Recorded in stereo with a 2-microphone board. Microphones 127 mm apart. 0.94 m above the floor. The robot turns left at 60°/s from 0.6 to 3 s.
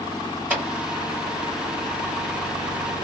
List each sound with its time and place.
0.5 s a clap: 10° right (ahead or behind), 1.8 m; by 0.7 s 15° right (ahead or behind), 1.8 m